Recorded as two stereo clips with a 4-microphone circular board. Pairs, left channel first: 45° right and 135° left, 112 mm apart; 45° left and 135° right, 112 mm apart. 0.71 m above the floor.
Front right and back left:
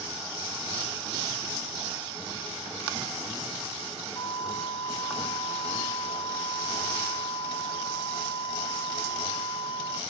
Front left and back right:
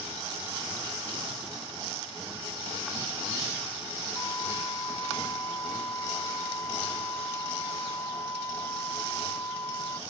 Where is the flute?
15° right.